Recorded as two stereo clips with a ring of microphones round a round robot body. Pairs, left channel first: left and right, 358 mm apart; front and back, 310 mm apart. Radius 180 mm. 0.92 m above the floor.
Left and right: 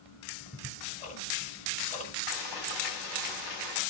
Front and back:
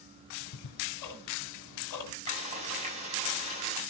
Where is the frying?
110° left, 7 m.